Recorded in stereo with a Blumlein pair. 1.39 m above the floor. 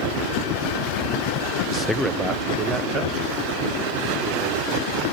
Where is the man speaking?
35° left, 0.6 m; by 5.0 s 35° right, 5.5 m.